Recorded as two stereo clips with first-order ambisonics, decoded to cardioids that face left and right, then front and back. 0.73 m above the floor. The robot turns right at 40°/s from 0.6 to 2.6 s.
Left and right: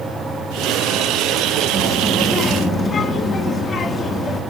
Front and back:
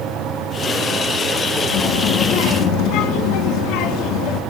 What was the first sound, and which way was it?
A child speaking, 15° right.